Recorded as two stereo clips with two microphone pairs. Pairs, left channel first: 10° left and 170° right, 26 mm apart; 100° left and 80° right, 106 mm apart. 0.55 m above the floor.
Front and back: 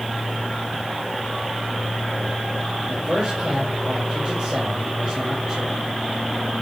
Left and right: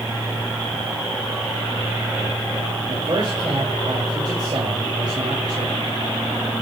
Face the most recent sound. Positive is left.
turn(degrees=-120)